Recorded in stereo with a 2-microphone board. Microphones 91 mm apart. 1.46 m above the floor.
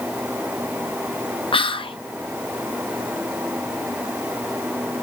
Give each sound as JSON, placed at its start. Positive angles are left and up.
{"t": 1.5, "sound": "whispering", "side_deg": 70, "distance_m": 0.5}